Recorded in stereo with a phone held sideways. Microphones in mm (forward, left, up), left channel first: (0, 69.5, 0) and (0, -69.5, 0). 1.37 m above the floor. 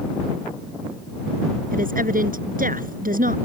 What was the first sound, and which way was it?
A woman speaking, 85° right.